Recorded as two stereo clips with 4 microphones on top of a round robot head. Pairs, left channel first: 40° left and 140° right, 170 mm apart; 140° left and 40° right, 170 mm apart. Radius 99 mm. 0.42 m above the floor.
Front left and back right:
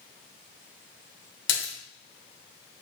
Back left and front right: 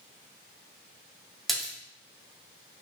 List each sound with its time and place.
1.5 s a splash: 50° left, 2.0 m